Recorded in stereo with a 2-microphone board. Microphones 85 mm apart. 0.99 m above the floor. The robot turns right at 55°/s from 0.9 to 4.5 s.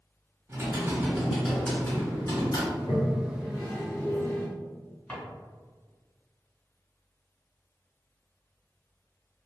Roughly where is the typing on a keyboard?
Ahead right.